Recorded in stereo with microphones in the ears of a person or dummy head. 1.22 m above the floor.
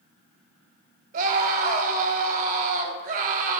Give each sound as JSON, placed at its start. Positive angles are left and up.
{"t": 1.1, "sound": "a scream", "side_deg": -35, "distance_m": 2.0}